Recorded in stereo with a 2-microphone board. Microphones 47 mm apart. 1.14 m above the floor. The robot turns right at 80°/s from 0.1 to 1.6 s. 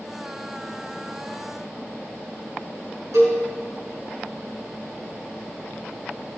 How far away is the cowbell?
About 5 m.